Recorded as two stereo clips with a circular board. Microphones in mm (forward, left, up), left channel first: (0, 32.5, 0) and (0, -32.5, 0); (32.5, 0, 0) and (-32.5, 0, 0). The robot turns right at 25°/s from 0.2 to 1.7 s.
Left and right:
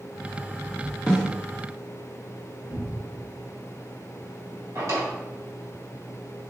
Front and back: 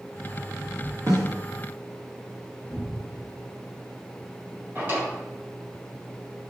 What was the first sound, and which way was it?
A snare drum, 165° left.